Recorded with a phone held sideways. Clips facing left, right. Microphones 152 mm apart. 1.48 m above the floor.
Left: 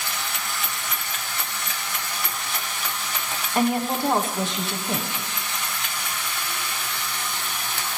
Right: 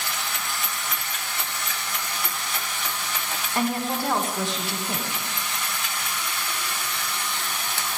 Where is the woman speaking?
20° left (ahead or behind), 1.6 m.